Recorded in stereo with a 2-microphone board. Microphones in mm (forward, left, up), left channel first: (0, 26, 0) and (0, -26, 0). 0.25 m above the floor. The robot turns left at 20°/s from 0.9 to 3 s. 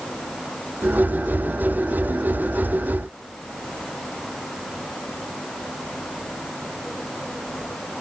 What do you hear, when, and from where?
Only background noise.